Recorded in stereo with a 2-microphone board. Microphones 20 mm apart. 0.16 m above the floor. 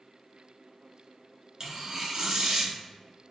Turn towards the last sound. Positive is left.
turn(degrees=-25)  # may be behind; listen again after turning